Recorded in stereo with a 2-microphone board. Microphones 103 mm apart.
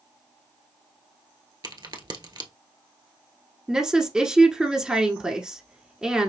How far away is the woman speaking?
About 1.1 m.